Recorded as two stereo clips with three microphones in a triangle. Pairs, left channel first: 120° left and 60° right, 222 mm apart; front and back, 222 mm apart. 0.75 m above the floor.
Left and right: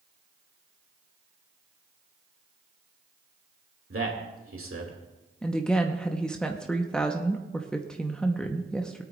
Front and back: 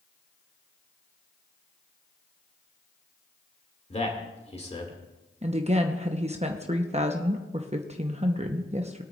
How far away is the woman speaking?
About 0.8 m.